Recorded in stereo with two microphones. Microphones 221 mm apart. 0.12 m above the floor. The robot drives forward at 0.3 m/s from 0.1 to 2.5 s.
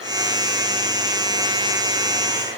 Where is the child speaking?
No child speaking in this recording.